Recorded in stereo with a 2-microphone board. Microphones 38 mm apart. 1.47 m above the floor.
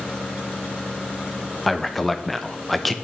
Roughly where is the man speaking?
Centre.